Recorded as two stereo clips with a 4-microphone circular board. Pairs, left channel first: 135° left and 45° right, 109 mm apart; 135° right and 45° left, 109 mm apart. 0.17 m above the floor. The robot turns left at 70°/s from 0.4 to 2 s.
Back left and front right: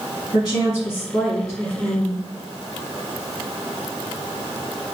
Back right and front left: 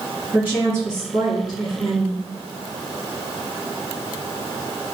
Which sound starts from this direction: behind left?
A woman speaking, at 0.3 s.